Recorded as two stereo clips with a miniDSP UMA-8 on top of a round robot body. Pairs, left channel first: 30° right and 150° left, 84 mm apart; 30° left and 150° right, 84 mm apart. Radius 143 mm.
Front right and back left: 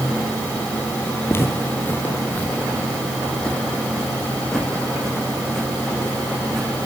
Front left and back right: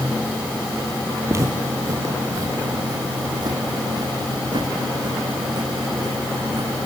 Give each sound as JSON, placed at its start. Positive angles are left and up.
{"t": 1.3, "sound": "footsteps", "azimuth_deg": -90, "distance_m": 2.5}